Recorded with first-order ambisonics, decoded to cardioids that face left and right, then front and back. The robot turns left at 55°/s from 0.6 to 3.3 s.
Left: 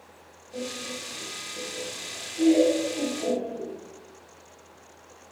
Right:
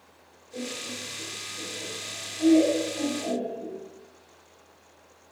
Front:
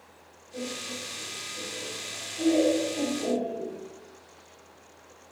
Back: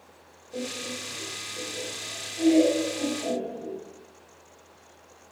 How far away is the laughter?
About 1.8 m.